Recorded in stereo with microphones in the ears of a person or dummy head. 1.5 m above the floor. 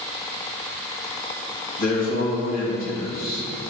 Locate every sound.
1.8 s a man speaking: 35° left (ahead or behind), 2.5 m